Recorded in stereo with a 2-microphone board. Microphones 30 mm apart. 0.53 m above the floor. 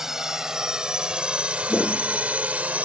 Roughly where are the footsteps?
Left.